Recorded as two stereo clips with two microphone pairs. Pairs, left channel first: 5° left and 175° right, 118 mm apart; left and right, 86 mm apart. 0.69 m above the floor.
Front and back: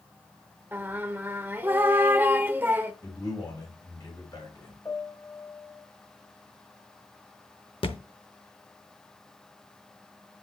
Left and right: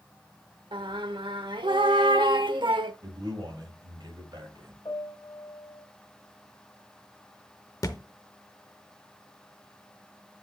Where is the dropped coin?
I don't hear a dropped coin.